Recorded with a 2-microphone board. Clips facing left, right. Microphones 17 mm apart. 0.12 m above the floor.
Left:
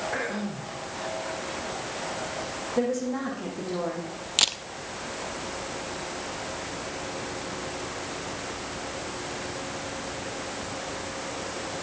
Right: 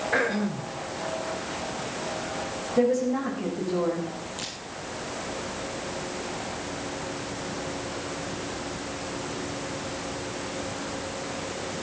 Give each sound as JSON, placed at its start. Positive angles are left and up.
{"t": 0.1, "sound": "throat clearing", "side_deg": -25, "distance_m": 3.5}
{"t": 2.8, "sound": "a woman speaking", "side_deg": 10, "distance_m": 6.0}
{"t": 4.4, "sound": "a camera shutter", "side_deg": 70, "distance_m": 0.8}